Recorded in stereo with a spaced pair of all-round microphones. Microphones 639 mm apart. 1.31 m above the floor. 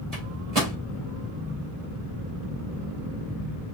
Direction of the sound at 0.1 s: 70° right (ahead or behind).